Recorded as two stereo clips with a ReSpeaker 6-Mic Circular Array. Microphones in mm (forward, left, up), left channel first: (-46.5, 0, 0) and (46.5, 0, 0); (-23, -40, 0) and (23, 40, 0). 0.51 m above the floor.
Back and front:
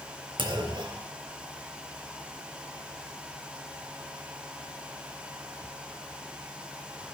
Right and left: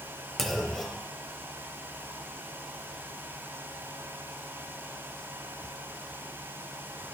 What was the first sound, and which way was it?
A clunk, 30° right.